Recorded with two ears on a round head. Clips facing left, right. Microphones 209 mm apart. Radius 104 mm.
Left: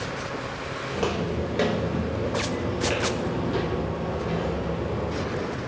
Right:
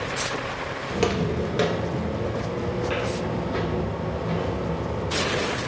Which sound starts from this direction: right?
Footsteps, at 0.9 s.